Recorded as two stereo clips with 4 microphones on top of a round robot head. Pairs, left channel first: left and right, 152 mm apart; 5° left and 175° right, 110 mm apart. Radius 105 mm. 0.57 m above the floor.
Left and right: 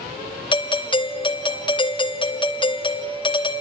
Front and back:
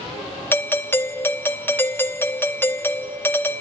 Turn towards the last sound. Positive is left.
turn(degrees=65)